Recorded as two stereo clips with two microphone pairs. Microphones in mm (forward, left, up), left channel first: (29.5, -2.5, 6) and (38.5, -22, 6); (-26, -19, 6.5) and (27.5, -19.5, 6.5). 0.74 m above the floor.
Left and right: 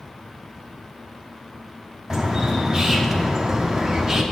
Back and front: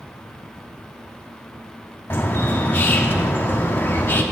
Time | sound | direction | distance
2.1 | a bird | 130° right | 0.8 m